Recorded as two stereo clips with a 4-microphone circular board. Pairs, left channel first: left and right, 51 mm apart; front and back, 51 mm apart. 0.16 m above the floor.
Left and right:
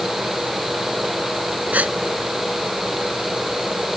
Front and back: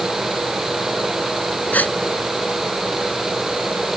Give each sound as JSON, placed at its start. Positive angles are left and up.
{"t": 1.7, "sound": "a gasp", "azimuth_deg": -40}